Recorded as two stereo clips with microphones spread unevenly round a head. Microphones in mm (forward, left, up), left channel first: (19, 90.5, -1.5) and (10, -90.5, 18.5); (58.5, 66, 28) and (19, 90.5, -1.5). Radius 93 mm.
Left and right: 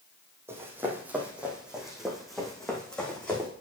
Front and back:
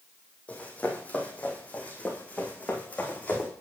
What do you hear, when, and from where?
0.5 s running footsteps: 25° right, 2.5 m; by 3.5 s straight ahead, 3.5 m